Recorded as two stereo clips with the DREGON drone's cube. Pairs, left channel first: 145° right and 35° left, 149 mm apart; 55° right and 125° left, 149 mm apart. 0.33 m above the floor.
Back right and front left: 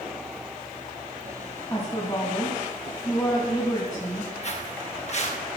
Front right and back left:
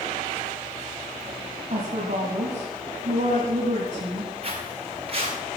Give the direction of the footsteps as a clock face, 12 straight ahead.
6 o'clock.